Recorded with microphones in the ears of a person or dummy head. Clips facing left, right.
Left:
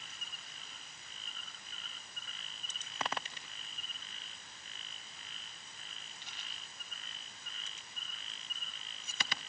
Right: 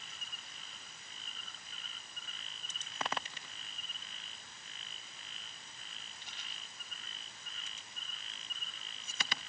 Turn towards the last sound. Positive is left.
No sound to turn to.